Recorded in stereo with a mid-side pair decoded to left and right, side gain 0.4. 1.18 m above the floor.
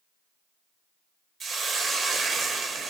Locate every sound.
1.4 s a hiss: 60° right, 0.8 m